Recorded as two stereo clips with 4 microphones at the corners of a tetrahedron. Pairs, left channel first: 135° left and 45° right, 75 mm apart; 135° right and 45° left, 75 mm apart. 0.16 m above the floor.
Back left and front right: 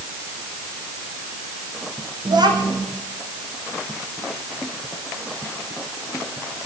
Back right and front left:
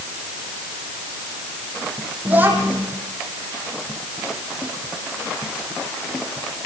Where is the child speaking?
25° right, 5.5 m.